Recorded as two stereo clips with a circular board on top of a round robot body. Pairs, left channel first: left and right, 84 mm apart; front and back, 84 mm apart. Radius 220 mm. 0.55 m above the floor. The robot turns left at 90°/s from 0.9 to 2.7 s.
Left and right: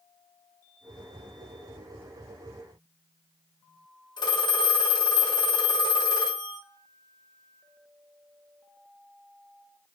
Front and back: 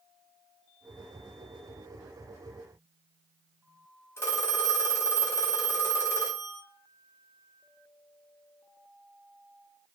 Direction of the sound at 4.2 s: 60° left.